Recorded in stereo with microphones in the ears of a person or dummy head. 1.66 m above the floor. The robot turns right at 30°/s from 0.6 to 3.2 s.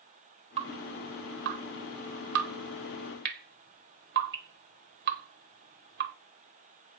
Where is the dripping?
30° right (ahead or behind), 1.0 m; by 6.1 s 50° right (ahead or behind), 1.0 m.